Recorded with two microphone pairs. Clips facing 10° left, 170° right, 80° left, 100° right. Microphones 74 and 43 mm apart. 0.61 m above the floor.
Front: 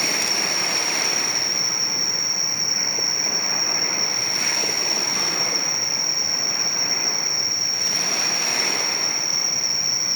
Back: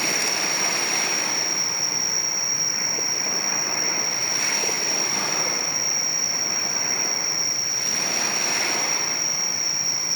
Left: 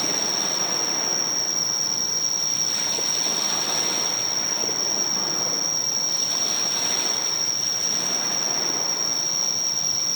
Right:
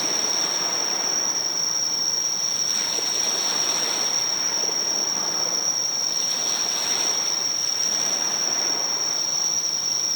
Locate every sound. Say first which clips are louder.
0.0 s an insect: even, even; 35° left, 8.5 m